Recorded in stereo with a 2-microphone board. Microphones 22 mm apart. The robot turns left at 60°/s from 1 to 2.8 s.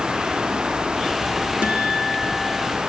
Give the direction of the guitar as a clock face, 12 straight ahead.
4 o'clock.